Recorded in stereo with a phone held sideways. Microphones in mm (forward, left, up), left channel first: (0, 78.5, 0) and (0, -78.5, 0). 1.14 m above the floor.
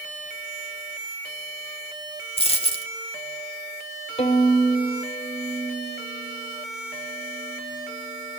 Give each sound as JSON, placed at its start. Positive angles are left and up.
{"t": 2.4, "sound": "a dropped coin", "side_deg": 35, "distance_m": 1.4}
{"t": 4.2, "sound": "a violin", "side_deg": 40, "distance_m": 1.2}